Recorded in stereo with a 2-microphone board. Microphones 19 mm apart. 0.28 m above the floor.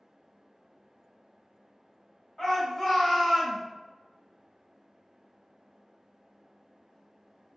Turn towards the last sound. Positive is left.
turn(degrees=0)  # may be behind; listen again after turning